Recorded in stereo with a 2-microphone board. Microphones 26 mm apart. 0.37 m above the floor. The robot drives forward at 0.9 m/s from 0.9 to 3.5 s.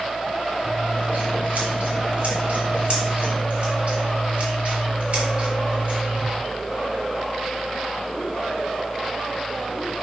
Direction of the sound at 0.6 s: 60° right (ahead or behind).